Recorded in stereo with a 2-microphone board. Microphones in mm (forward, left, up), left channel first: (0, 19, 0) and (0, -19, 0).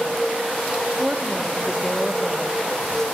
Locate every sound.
1.0 s a woman speaking: 30° right (ahead or behind), 0.9 m; by 3.0 s 15° left (ahead or behind), 2.0 m